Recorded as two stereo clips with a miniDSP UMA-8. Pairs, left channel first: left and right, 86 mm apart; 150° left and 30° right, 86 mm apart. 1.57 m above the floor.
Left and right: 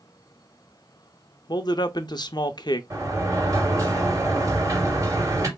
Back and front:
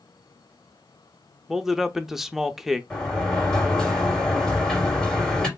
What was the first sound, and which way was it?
A man speaking, 55° left.